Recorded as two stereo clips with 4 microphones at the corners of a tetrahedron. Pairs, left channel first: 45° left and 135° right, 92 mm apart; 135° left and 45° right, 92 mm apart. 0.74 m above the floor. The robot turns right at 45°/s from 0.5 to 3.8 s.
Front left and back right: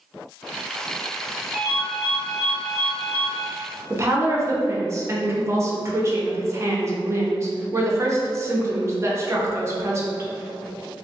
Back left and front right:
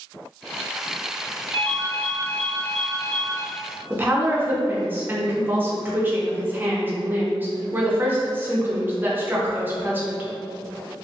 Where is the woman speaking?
100° right, 0.5 m.